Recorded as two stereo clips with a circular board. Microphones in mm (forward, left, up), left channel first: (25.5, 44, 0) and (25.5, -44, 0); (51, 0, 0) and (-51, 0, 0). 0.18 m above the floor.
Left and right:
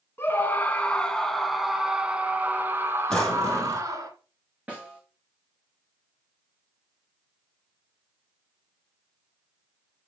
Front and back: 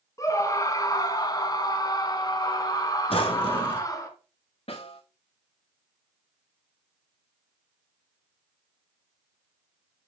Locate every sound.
0.2 s a scream: 40° left, 1.8 m; by 4.1 s 50° right, 2.5 m
3.1 s a drawer: 10° left, 2 m
4.7 s a snare drum: 15° right, 4 m